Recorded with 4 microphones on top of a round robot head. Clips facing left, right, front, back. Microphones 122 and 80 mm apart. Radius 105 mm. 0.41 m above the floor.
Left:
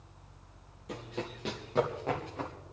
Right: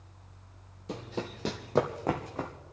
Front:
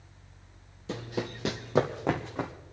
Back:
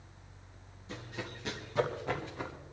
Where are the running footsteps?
25° right, 0.8 m; by 2.5 s 35° right, 1.8 m.